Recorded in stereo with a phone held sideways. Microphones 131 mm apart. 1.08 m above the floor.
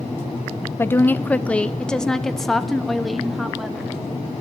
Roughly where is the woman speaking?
Centre.